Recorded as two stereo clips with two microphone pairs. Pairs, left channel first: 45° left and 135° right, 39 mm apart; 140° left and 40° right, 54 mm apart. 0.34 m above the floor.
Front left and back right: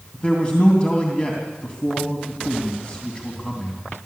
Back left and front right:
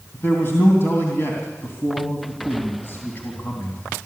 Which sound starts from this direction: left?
A man speaking, at 0.1 s.